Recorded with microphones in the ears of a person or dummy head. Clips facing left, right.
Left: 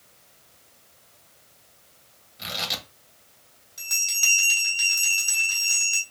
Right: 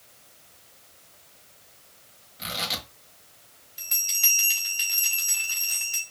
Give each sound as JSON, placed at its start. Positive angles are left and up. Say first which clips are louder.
{"t": 2.4, "sound": "tearing paper", "louder": "even", "side_deg": 25, "distance_m": 1.3}
{"t": 3.8, "sound": "a bell", "louder": "left 3 dB", "side_deg": 75, "distance_m": 4.0}